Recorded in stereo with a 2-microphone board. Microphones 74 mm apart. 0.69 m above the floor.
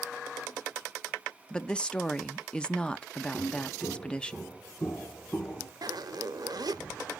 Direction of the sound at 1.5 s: 10° left (ahead or behind).